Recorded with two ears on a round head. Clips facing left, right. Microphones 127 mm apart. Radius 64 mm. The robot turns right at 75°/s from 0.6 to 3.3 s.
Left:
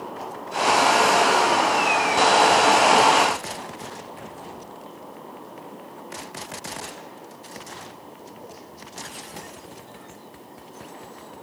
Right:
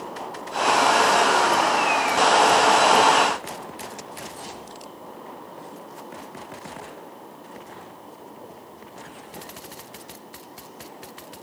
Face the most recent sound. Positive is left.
No sound to turn to.